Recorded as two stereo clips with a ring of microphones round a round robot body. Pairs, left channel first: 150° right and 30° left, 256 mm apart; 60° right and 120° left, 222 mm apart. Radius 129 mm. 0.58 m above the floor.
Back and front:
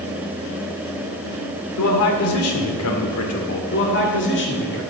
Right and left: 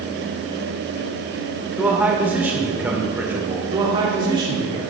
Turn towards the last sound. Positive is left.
turn(degrees=-175)